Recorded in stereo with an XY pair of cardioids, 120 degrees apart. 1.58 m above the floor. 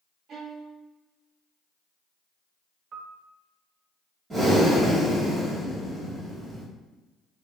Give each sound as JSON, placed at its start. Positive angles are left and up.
{"t": 0.3, "sound": "a violin", "azimuth_deg": -55, "distance_m": 1.1}
{"t": 2.9, "sound": "a piano", "azimuth_deg": -55, "distance_m": 0.5}
{"t": 4.3, "sound": "breathing", "azimuth_deg": -30, "distance_m": 1.9}